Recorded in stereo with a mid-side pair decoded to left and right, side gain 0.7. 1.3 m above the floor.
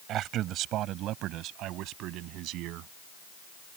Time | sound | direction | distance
0.1 | a man speaking | 50° right | ?